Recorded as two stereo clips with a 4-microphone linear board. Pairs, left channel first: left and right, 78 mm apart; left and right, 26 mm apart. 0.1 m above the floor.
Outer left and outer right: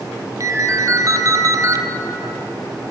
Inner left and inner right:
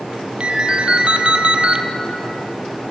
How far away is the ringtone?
About 1.6 m.